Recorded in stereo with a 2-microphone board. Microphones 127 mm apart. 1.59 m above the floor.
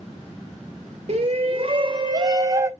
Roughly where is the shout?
Right.